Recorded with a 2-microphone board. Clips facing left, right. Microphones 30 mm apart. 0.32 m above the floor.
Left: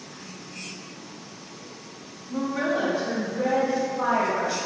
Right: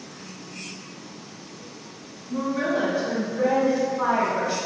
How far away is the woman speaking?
About 1.4 m.